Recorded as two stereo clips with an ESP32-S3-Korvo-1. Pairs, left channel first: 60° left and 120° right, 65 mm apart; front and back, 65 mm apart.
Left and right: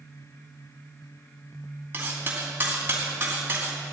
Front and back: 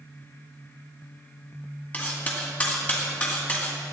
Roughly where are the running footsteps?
I don't hear running footsteps.